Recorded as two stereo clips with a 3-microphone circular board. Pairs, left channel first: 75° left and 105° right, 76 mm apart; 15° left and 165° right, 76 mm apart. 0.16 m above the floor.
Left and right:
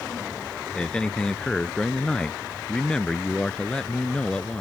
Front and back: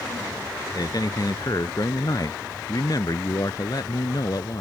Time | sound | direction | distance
0.8 | a man speaking | 5° right | ?